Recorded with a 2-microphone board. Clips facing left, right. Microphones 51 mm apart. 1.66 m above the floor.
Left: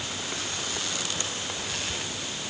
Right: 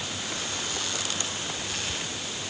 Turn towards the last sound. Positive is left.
No sound to turn to.